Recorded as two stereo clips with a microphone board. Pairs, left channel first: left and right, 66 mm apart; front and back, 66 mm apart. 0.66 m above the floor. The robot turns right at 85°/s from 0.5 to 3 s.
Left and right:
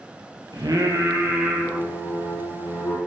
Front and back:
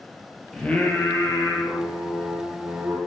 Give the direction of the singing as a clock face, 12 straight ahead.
3 o'clock.